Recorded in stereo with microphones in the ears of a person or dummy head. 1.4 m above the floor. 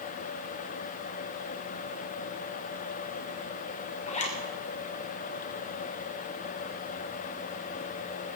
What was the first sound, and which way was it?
A zipper, 35° left (ahead or behind).